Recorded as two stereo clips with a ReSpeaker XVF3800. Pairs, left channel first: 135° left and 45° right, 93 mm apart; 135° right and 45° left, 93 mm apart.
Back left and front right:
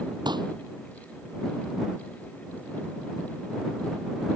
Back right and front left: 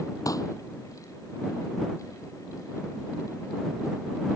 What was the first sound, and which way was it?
A pop, 85° right.